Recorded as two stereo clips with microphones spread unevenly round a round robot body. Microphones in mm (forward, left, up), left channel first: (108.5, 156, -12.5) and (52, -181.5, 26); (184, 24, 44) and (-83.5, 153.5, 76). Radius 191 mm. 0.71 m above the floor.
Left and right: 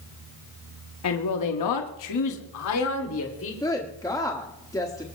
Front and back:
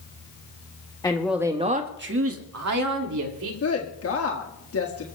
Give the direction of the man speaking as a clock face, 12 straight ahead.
10 o'clock.